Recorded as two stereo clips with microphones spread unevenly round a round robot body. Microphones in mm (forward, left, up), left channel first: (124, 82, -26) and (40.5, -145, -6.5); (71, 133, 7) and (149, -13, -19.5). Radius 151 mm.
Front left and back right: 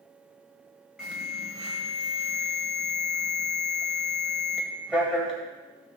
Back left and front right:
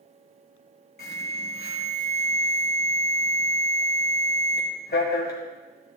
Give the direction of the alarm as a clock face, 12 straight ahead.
7 o'clock.